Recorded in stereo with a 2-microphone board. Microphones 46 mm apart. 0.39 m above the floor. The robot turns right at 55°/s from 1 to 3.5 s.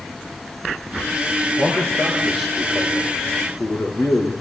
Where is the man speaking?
55° right, 7 m; by 4.3 s 50° left, 7 m.